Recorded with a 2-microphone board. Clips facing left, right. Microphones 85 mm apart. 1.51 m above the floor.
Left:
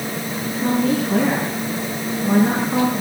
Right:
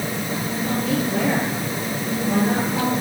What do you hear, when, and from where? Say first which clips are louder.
0.4 s a woman speaking: left 6 dB; 85° left, 7.5 m